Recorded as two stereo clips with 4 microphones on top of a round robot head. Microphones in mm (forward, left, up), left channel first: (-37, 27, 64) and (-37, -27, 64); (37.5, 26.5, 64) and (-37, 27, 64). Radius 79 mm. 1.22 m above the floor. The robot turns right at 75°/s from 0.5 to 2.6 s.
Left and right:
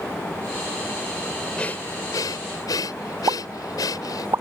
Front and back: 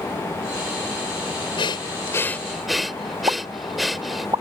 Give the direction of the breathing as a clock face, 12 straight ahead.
12 o'clock.